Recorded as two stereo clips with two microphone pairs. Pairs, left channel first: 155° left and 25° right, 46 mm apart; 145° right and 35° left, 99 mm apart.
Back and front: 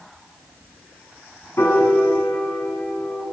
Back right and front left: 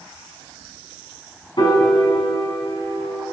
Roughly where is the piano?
Behind.